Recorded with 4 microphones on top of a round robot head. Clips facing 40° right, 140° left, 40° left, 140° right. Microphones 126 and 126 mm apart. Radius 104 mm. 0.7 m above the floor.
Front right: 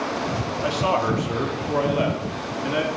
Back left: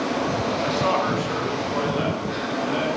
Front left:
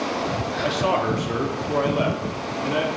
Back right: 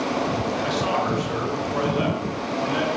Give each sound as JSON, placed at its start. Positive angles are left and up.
{"t": 0.6, "sound": "a man speaking", "azimuth_deg": 35, "distance_m": 1.8}